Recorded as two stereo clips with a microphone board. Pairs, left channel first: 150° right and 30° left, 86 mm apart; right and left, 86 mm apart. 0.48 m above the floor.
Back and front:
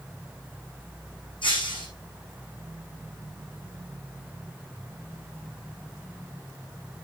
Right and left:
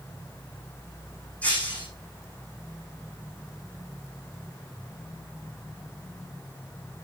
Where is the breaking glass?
165° right, 7.5 m.